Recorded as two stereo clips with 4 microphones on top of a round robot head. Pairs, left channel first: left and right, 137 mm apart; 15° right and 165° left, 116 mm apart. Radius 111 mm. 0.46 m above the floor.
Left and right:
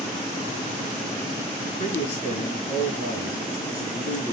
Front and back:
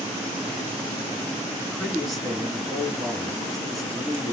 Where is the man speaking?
70° left, 5 m.